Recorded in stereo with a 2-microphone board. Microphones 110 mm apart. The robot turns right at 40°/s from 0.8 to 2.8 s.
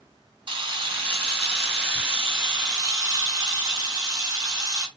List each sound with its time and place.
0.5 s a camera shutter: 120° right, 1.8 m; by 4.9 s 40° right, 1.8 m